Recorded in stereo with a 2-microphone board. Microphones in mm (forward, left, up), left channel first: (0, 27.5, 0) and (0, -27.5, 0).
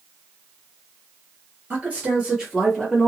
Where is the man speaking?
30° right (ahead or behind), 1.6 m; by 3.1 s 5° left (ahead or behind), 1.9 m.